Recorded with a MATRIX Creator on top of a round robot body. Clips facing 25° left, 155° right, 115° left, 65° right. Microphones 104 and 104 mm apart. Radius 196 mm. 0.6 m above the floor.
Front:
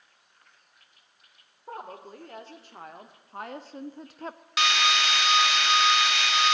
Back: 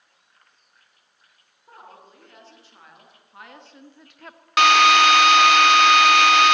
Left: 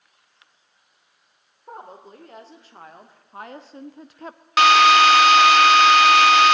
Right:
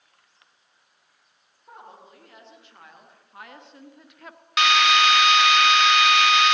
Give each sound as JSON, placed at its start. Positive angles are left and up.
{"t": 1.7, "sound": "a woman speaking", "azimuth_deg": 65, "distance_m": 3.0}
{"t": 4.6, "sound": "a drill", "azimuth_deg": 165, "distance_m": 0.7}